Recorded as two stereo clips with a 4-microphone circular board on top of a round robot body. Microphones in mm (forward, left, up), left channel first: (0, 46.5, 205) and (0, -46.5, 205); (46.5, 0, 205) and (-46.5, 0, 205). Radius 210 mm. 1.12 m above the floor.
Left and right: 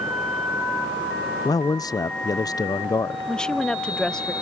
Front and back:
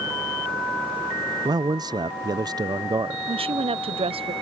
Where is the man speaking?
140° left.